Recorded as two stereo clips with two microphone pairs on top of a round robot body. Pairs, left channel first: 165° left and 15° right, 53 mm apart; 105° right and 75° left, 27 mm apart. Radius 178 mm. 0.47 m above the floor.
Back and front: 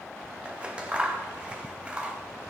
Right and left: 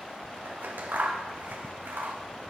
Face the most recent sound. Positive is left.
turn(degrees=60)